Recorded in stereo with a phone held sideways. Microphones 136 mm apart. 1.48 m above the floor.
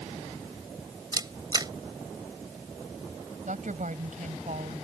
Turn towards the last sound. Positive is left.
turn(degrees=-65)  # may be behind; listen again after turning